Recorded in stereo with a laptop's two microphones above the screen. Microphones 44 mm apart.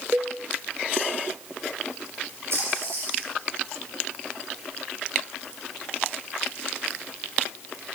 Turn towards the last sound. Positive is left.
turn(degrees=-65)  # may be behind; listen again after turning